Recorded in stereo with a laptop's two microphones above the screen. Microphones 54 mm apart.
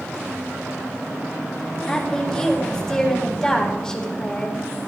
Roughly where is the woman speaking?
Centre.